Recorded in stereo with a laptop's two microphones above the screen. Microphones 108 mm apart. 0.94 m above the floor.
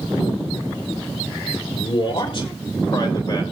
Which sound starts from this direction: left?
A man speaking, at 1.8 s.